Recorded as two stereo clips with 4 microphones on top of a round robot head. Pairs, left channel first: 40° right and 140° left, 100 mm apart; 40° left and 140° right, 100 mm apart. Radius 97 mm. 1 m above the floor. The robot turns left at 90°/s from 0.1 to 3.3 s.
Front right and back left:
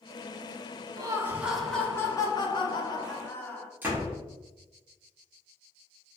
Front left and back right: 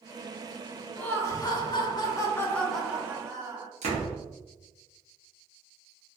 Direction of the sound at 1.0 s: 110° left.